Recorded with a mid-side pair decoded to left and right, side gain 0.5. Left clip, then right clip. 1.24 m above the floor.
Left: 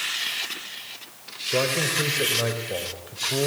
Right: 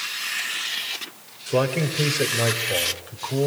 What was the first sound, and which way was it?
A man speaking, 25° right.